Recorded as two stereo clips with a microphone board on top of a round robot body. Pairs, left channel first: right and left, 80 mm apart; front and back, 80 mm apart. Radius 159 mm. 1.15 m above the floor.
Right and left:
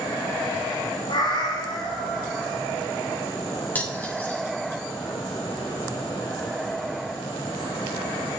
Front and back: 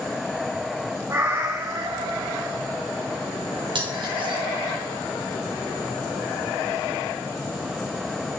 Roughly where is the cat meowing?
Behind right.